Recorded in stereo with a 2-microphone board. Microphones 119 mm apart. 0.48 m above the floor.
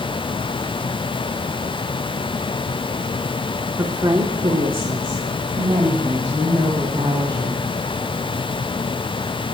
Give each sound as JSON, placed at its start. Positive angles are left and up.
{"t": 3.8, "sound": "a woman speaking", "side_deg": -25, "distance_m": 0.7}